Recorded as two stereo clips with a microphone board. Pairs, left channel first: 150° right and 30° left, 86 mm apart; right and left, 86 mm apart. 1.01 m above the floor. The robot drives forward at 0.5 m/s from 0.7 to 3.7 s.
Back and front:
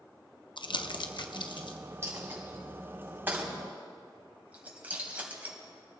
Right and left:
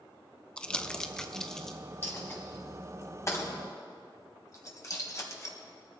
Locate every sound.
0.6 s crumpling: 170° right, 0.5 m; by 1.8 s 175° right, 1.1 m
2.0 s a dropped coin: 30° right, 3 m; by 5.6 s 40° right, 2 m